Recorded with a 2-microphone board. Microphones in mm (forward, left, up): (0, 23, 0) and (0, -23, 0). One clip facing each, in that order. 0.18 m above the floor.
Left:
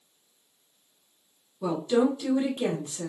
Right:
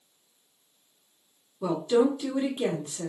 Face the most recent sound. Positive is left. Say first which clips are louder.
# right 1 dB
turn(degrees=-10)  # may be behind; listen again after turning